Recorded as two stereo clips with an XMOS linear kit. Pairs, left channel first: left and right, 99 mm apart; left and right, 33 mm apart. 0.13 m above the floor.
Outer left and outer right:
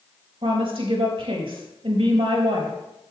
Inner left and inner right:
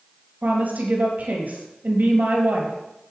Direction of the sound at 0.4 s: 65° right (ahead or behind).